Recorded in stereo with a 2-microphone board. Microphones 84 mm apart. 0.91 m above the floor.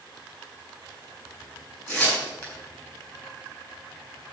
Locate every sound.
1.9 s tearing paper: 35° left (ahead or behind), 5.5 m